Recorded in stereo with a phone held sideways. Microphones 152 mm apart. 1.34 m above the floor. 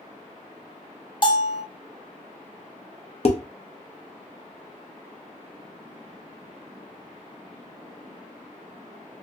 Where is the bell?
35° left (ahead or behind), 0.7 m.